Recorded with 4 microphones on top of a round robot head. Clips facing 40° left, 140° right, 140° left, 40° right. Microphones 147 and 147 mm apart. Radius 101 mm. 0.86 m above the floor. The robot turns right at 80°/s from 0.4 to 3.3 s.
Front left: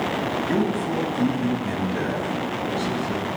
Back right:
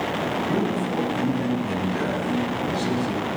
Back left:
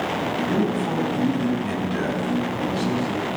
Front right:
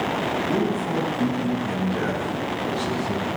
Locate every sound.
0.5 s a man speaking: 40° left, 5.5 m; by 3.3 s 95° right, 5.5 m